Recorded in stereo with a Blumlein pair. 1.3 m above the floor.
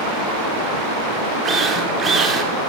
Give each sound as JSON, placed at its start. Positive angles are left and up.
{"t": 1.4, "sound": "a drill", "azimuth_deg": -20, "distance_m": 4.5}